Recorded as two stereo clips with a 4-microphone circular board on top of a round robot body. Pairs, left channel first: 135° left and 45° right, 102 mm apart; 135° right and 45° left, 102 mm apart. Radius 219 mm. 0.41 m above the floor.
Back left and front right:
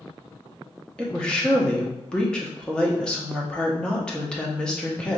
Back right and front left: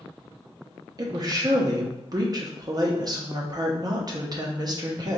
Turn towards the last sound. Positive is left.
turn(degrees=60)